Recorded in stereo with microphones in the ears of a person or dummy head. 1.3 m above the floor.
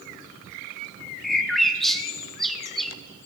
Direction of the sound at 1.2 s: Centre (ahead or behind).